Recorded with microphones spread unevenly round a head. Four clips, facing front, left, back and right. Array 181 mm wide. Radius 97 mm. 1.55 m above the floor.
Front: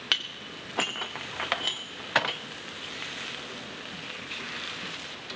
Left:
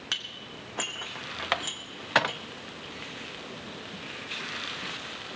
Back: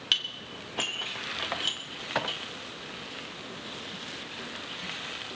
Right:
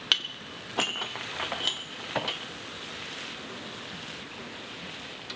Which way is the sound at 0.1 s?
60° right.